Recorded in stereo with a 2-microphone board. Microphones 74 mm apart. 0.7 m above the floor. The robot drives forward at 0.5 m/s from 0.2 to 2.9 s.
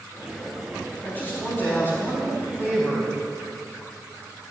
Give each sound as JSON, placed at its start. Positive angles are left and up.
{"t": 1.0, "sound": "a man speaking", "side_deg": 35, "distance_m": 4.0}